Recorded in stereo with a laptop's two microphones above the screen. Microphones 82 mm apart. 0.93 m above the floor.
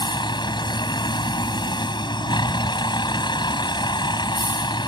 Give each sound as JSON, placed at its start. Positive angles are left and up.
{"t": 0.0, "sound": "a vehicle", "side_deg": 65}